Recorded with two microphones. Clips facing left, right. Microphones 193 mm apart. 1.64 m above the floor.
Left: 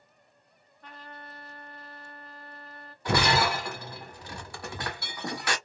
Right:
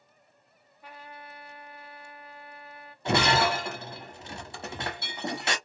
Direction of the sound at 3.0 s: 25° right (ahead or behind).